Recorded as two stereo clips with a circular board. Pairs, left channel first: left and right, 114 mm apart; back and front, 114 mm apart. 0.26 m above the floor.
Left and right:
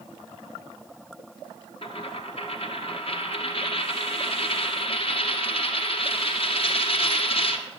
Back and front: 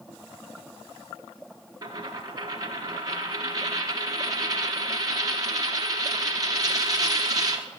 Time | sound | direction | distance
1.8 | a dropped coin | 55° left | 1.5 m